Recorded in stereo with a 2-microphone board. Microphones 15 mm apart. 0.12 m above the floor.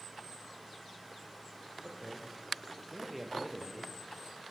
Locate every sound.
1.8 s a man speaking: 5° right (ahead or behind), 5.5 m; by 4.0 s 10° left (ahead or behind), 3.5 m